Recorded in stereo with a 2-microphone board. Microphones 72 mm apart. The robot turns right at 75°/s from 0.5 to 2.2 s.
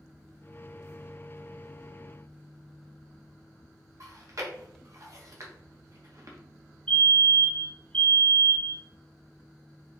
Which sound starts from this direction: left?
A fire alarm, at 6.9 s.